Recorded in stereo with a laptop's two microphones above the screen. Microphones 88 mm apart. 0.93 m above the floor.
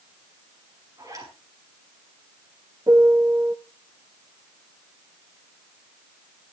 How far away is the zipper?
About 5.5 m.